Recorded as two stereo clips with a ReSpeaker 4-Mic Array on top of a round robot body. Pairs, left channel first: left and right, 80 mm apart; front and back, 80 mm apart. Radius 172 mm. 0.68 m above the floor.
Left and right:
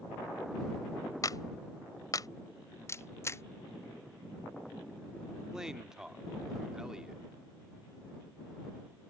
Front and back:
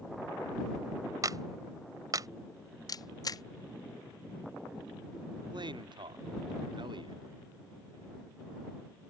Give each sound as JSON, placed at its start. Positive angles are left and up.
{"t": 1.2, "sound": "a clap", "azimuth_deg": 135}
{"t": 2.9, "sound": "a camera shutter", "azimuth_deg": 35}
{"t": 5.5, "sound": "a man speaking", "azimuth_deg": -170}